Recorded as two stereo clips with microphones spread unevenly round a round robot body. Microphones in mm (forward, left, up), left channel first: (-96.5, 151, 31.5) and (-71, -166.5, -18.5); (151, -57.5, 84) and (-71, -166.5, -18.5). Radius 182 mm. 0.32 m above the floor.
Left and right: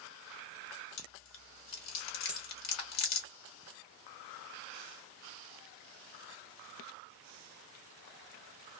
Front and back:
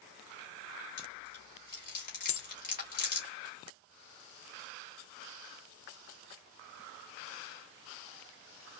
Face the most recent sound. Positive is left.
turn(degrees=-15)